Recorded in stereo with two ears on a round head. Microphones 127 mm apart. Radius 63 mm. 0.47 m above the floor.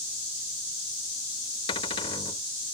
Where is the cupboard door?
40° left (ahead or behind).